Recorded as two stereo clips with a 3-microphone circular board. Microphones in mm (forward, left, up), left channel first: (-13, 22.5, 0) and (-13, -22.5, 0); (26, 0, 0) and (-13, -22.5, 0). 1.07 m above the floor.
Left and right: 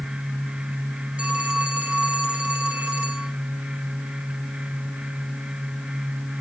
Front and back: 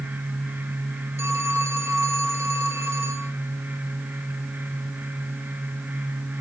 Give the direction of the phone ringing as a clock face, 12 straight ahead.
5 o'clock.